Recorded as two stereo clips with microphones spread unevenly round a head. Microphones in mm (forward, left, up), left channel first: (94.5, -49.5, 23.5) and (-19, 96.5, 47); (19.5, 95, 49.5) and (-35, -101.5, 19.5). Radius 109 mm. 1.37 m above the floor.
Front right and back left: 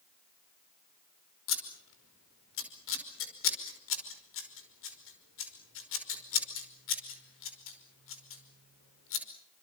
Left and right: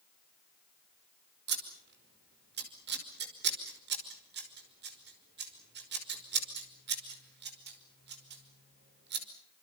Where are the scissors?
65° right, 5 m.